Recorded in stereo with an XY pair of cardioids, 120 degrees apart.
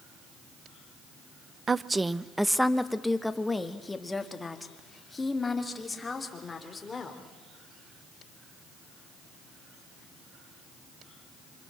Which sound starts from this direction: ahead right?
A woman speaking, at 1.7 s.